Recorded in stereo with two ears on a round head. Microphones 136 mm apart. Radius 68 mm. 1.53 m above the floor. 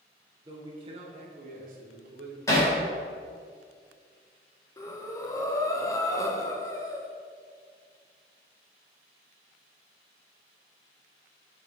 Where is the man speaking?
25° right (ahead or behind), 1.6 m; by 2.4 s 75° right (ahead or behind), 1.6 m.